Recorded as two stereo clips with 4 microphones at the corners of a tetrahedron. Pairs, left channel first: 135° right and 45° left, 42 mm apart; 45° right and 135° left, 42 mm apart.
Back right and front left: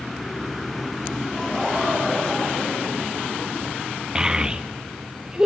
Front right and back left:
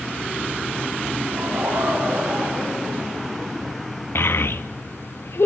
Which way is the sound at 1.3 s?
135° left.